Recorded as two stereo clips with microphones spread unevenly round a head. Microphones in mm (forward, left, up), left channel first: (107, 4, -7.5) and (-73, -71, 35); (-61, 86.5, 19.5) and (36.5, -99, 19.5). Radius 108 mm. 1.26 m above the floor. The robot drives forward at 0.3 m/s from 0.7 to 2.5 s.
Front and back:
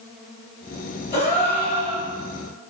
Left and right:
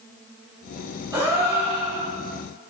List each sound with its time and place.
1.1 s a gasp: straight ahead, 1.1 m; by 2.1 s 10° right, 1.0 m